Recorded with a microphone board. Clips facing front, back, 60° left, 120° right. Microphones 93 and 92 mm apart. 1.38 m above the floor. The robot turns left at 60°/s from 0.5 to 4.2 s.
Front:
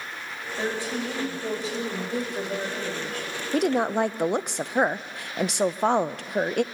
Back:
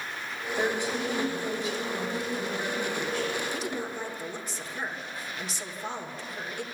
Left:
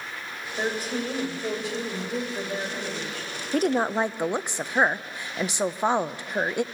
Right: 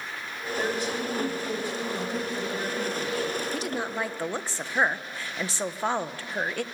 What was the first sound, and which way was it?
A woman speaking, 125° left.